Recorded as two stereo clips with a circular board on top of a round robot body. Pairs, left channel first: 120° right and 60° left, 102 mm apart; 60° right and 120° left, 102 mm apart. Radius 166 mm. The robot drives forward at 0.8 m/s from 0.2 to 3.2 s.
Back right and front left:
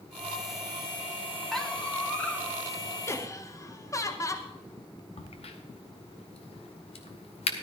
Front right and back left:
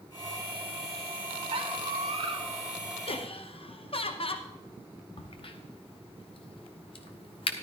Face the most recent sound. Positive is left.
turn(degrees=-95)